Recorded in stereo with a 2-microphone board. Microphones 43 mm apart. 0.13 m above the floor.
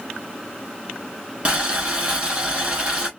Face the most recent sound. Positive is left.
turn(degrees=-25)  # may be behind; listen again after turning